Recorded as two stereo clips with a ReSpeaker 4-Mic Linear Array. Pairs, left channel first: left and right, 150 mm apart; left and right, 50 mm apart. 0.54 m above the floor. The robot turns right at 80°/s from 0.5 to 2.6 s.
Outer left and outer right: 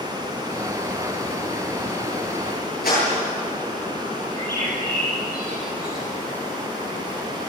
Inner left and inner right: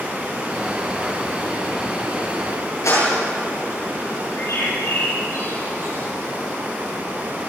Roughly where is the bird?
Left.